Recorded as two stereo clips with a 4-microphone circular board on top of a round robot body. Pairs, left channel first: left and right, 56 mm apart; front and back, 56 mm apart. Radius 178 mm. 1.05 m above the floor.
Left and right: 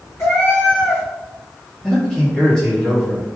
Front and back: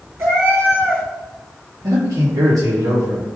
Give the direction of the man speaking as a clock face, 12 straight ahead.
7 o'clock.